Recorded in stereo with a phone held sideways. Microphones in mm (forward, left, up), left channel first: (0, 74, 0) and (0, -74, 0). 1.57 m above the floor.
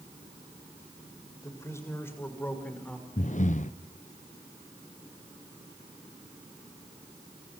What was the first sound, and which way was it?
A man speaking, 20° left (ahead or behind).